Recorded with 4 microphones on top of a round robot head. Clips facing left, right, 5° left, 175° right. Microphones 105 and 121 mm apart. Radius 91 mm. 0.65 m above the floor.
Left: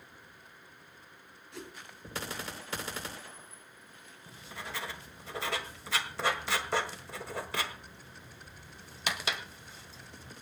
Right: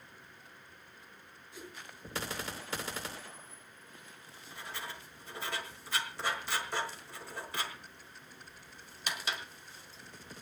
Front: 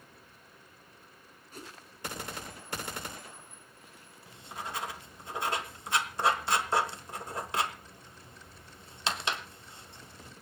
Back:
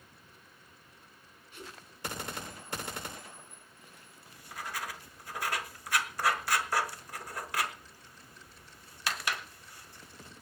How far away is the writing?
About 1.6 m.